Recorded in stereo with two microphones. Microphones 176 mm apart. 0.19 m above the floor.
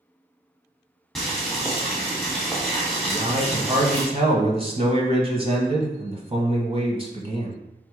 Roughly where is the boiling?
Centre.